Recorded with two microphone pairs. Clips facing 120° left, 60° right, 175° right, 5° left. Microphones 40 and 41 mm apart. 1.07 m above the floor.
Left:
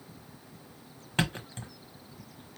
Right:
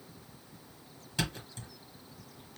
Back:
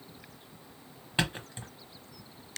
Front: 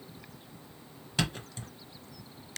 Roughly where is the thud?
Behind left.